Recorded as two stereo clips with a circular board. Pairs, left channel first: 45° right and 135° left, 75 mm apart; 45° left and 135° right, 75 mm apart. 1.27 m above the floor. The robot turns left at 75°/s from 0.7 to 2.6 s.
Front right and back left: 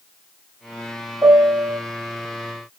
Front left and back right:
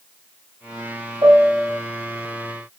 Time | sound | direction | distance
1.2 | a piano | 175° right | 1.4 m